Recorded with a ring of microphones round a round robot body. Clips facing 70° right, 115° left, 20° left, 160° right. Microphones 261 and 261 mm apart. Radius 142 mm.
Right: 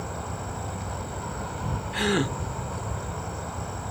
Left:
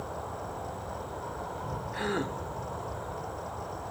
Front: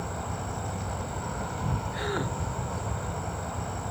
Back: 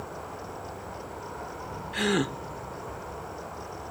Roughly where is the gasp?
Right.